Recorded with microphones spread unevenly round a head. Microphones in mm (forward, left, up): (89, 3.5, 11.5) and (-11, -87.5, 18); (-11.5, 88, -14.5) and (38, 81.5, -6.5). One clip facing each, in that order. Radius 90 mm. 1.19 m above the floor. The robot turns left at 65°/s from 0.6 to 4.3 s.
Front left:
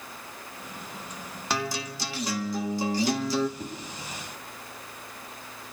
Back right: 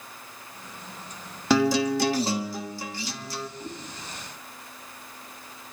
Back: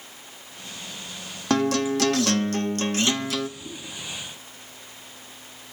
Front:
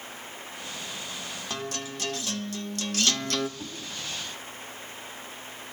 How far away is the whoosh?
About 8 m.